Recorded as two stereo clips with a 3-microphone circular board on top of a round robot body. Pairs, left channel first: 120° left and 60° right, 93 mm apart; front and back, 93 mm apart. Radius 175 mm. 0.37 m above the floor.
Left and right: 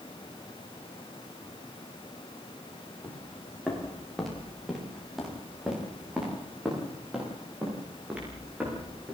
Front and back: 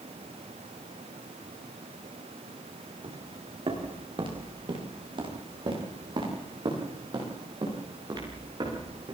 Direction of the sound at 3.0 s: 160° right.